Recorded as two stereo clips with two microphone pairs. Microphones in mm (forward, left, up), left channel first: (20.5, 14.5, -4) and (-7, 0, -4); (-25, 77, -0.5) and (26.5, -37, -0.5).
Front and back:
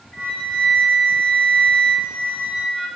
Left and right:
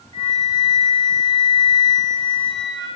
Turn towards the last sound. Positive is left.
turn(degrees=70)